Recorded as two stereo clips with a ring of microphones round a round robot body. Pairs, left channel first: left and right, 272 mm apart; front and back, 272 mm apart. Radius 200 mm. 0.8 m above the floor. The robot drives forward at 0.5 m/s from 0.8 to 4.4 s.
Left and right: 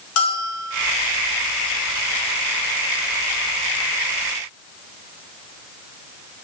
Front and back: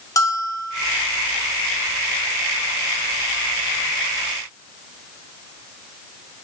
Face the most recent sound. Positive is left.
turn(degrees=115)